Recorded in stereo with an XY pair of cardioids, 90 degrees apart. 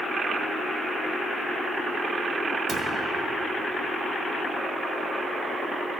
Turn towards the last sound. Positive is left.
turn(degrees=-70)